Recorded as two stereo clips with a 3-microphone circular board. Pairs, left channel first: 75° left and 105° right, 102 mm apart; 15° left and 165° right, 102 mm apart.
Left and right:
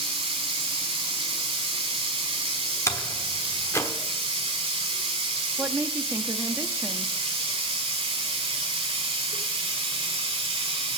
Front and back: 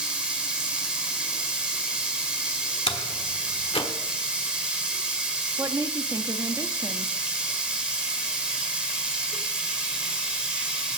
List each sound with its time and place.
0.0 s running water: 85° right, 1.8 m
2.9 s a door slam: 15° left, 1.1 m
5.6 s a woman speaking: 150° right, 0.6 m